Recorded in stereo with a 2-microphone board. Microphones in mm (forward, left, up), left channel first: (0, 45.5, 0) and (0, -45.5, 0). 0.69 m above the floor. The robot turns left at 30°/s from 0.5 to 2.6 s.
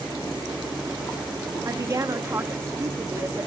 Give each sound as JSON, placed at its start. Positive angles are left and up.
{"t": 1.6, "sound": "a woman speaking", "side_deg": -40, "distance_m": 1.0}